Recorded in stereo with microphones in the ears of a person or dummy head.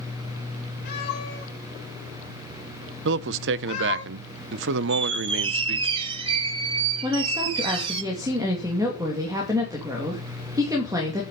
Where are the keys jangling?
I don't hear keys jangling.